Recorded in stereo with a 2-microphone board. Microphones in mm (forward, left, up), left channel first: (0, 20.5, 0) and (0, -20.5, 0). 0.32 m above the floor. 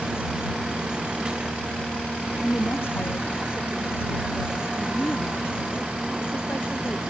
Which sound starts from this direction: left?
A woman speaking, at 2.4 s.